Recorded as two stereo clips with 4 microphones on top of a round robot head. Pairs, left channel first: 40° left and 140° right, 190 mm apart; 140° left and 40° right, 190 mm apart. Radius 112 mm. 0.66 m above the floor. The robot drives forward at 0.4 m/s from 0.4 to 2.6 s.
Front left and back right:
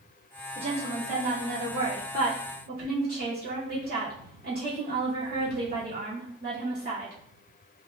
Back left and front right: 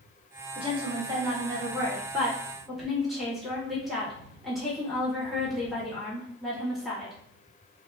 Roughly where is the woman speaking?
Right.